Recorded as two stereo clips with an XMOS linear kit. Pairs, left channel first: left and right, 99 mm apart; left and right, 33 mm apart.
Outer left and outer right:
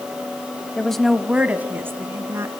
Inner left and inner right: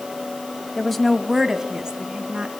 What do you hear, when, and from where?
0.8 s a woman speaking: 10° left (ahead or behind), 1.2 m; by 2.5 s 30° right (ahead or behind), 2.5 m